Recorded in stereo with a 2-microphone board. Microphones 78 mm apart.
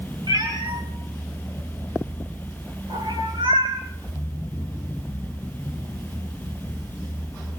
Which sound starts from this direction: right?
A cat meowing, at 0.3 s.